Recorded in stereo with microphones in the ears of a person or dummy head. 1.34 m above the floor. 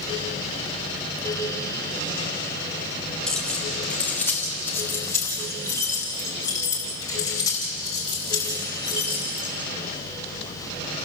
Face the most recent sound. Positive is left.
turn(degrees=20)  # may be behind; listen again after turning